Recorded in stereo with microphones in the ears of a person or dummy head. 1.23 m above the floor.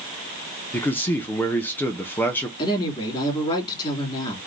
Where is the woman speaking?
25° left (ahead or behind), 3 m.